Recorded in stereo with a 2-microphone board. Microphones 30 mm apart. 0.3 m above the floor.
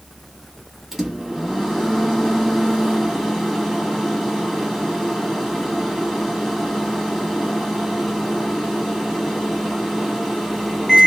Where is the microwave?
10° right (ahead or behind), 1.5 m.